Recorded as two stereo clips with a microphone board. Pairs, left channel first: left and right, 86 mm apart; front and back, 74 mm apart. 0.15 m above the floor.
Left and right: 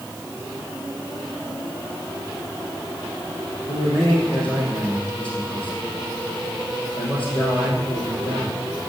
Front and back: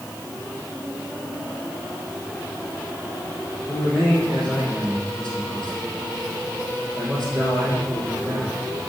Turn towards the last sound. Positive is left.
turn(degrees=80)